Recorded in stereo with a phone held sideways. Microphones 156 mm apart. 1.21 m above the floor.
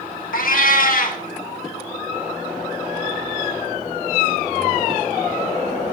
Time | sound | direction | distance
0.3 | a cat meowing | 65° left (ahead or behind) | 1.1 m